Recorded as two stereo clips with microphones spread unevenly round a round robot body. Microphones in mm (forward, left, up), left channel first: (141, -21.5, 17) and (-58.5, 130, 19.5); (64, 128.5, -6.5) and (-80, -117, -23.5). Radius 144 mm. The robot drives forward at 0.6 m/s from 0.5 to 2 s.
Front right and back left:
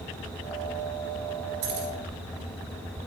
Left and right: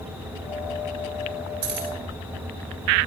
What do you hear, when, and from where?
1.6 s keys jangling: 160° right, 3.5 m